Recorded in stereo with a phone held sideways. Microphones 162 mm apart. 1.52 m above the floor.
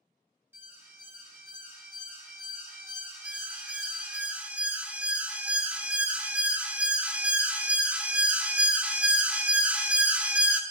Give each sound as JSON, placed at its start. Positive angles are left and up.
{"t": 0.5, "sound": "an alarm", "side_deg": -15, "distance_m": 2.0}
{"t": 3.2, "sound": "an alarm", "side_deg": -10, "distance_m": 0.6}